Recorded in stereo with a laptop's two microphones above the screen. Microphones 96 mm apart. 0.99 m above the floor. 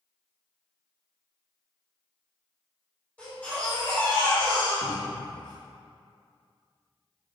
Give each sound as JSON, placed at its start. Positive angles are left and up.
{"t": 3.2, "sound": "a baby crying", "side_deg": 15, "distance_m": 1.5}
{"t": 4.8, "sound": "a cupboard door", "side_deg": -40, "distance_m": 1.1}